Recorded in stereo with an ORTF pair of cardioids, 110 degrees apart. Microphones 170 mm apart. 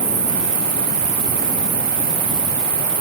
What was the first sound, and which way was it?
An insect, 25° right.